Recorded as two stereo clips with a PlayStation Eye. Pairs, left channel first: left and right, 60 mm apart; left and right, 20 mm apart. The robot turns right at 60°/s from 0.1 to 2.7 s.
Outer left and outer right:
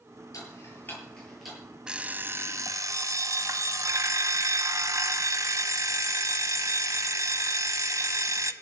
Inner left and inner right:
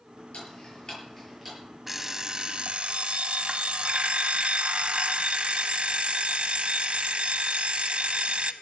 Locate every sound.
0.3 s ticking: 65° left (ahead or behind), 8.5 m; by 1.6 s 10° right (ahead or behind), 8.5 m
1.9 s an alarm clock: 165° right, 1.0 m; by 8.5 s 115° right, 1.0 m